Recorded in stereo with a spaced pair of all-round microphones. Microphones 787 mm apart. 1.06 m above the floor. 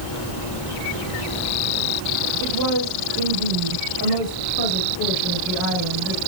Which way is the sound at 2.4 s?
20° left (ahead or behind).